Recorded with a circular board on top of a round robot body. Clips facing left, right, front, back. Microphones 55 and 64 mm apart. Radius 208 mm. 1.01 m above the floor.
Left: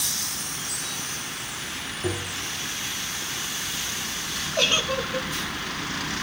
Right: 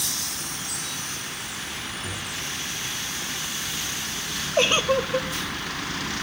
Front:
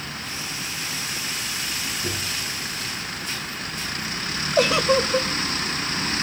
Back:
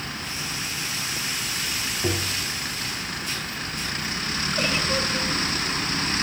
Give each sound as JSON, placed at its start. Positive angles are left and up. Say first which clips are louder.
{"t": 2.0, "sound": "tapping", "louder": "left 3 dB, back 3 dB", "azimuth_deg": 140, "distance_m": 1.7}
{"t": 4.6, "sound": "a giggle", "louder": "right 4 dB, front 8 dB", "azimuth_deg": -25, "distance_m": 0.9}